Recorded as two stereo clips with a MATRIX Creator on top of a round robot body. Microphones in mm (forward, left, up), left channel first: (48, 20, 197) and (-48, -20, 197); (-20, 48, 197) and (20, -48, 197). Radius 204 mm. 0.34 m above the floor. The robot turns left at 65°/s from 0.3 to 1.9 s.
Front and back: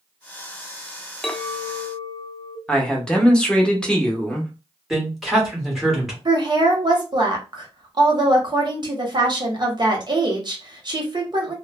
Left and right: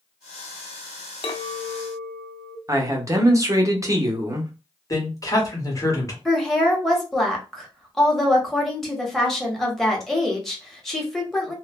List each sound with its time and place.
1.2 s a clink: 105° left, 0.7 m; by 2.6 s 65° left, 0.7 m
2.7 s a man speaking: 50° right, 1.0 m
4.9 s a man speaking: 115° left, 1.6 m
6.2 s a woman speaking: 160° right, 1.3 m